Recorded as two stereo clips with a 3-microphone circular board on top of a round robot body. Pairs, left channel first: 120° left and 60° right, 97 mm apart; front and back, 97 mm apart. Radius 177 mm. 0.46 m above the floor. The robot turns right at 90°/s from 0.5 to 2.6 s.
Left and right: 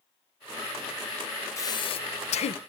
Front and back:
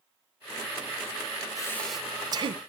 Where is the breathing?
55° left, 0.7 m; by 2.6 s 150° left, 0.7 m.